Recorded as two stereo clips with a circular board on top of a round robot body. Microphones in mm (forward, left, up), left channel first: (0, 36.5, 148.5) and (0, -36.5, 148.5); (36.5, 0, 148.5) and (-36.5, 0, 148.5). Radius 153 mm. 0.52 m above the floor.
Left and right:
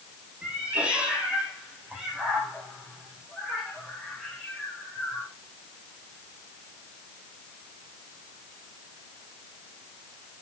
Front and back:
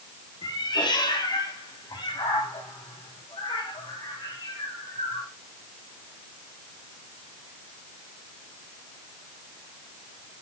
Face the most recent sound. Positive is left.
turn(degrees=5)